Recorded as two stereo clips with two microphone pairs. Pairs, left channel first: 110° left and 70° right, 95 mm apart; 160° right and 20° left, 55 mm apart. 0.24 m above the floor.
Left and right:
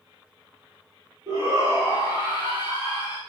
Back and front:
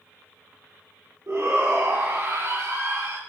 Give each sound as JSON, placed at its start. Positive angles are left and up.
{"t": 1.3, "sound": "a shout", "azimuth_deg": -15, "distance_m": 5.0}